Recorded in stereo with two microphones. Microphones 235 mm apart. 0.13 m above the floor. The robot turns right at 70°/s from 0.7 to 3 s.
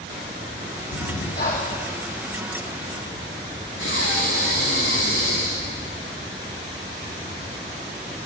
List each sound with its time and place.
0.9 s breathing: 100° left, 0.8 m; by 1.9 s 170° left, 0.8 m
3.8 s breathing: 80° left, 1.6 m